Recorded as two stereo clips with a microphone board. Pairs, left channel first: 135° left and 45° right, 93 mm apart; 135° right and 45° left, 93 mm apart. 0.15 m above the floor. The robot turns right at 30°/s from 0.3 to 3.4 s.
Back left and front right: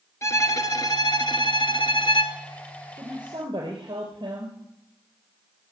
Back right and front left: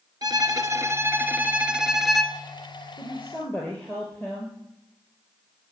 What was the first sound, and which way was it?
A violin, 85° left.